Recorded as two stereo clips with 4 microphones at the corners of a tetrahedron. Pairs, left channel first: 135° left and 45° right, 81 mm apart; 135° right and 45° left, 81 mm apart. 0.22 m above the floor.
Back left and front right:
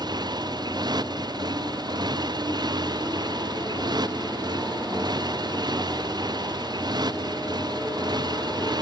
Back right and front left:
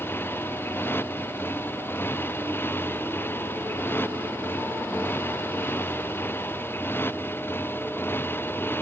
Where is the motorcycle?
70° right.